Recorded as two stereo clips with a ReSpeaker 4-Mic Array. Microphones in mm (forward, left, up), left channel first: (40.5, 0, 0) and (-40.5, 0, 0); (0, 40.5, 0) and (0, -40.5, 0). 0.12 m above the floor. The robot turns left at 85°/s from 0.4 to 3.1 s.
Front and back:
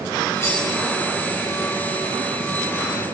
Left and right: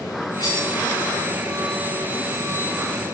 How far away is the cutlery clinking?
About 8.5 m.